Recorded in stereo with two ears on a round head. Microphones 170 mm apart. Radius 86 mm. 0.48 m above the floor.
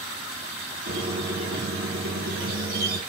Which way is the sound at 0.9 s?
50° right (ahead or behind).